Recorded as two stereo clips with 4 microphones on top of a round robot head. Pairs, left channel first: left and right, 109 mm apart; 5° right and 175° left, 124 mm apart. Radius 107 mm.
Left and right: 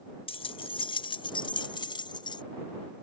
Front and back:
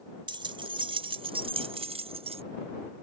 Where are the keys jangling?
125° left; by 2.4 s 135° left.